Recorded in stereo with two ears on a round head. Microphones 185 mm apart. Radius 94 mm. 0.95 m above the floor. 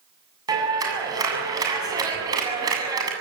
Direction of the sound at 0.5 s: 20° right (ahead or behind).